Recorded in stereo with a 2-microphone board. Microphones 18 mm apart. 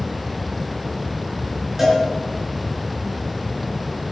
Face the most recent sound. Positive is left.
turn(degrees=-10)  # may be behind; listen again after turning